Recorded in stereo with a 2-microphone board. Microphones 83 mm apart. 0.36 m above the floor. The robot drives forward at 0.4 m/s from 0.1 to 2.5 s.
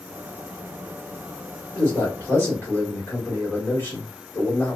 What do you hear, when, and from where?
1.8 s a man speaking: 25° left (ahead or behind), 1.7 m; by 4.8 s 30° left (ahead or behind), 1.6 m